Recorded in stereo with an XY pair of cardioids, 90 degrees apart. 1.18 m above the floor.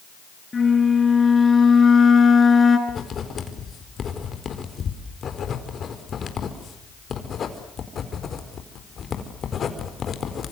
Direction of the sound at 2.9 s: 55° left.